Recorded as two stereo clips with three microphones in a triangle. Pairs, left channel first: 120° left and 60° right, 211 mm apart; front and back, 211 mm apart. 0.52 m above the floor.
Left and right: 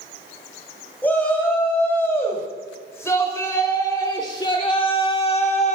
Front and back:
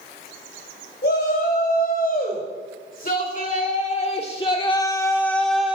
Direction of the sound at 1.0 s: 40° left.